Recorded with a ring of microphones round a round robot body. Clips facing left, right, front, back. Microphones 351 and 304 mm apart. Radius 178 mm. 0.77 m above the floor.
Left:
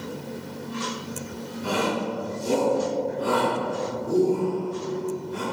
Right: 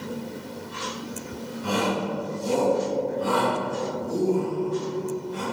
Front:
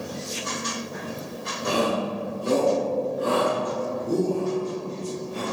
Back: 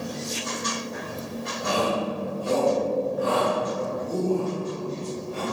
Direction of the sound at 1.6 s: 45° left.